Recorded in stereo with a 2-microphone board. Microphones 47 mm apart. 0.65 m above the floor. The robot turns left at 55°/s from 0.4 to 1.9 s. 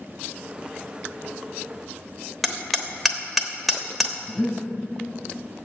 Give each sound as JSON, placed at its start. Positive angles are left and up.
{"t": 2.4, "sound": "hammering", "side_deg": 0, "distance_m": 1.1}
{"t": 4.3, "sound": "breathing", "side_deg": 35, "distance_m": 4.0}